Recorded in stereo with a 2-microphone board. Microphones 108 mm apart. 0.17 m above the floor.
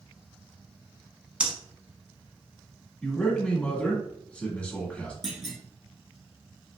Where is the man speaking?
10° left (ahead or behind), 1.1 m.